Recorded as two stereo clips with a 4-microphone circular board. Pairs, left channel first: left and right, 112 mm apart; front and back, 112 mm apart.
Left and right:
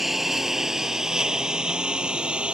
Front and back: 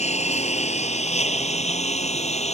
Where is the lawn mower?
Straight ahead; by 2.5 s 10° right.